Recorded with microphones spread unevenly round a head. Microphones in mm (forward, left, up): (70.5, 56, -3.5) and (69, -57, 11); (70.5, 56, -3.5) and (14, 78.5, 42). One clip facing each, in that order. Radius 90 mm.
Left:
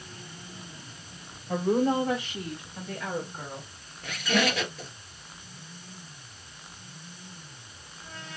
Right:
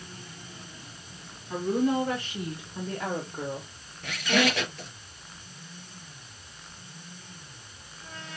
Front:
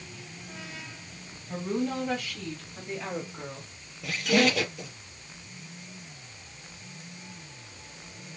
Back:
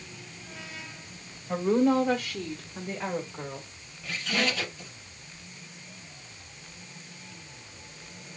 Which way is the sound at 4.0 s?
5° right.